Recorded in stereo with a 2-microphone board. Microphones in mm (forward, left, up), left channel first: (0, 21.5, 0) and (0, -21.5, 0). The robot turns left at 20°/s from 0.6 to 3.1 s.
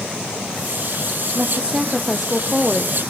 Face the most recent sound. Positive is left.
turn(degrees=170)